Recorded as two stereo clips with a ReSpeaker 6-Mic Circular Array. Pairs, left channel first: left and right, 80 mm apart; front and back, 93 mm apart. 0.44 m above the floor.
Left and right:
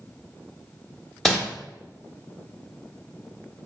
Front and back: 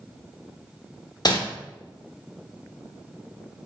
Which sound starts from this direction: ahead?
Crumpling, at 1.2 s.